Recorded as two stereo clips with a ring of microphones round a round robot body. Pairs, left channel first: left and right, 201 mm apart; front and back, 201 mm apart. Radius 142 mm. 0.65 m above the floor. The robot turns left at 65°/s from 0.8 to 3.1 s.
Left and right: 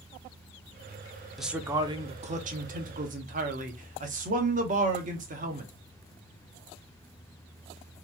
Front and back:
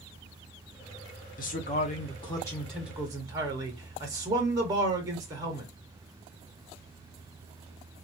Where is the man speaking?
Straight ahead, 1.0 m; by 5.7 s 115° right, 1.0 m.